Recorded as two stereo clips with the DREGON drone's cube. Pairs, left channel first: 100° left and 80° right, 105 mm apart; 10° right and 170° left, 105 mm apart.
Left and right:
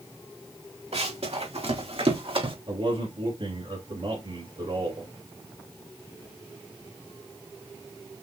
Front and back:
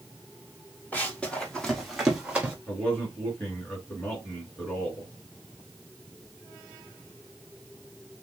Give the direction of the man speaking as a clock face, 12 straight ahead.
3 o'clock.